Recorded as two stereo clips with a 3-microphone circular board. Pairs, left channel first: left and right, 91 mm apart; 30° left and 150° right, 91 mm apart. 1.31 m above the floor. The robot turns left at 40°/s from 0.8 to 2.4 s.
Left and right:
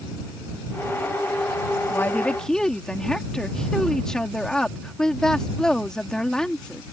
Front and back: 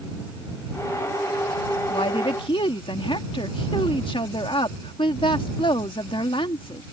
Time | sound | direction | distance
1.9 | a woman speaking | 25° left | ?